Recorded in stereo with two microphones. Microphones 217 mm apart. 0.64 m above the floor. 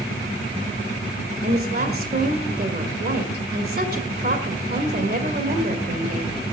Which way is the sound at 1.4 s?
45° right (ahead or behind).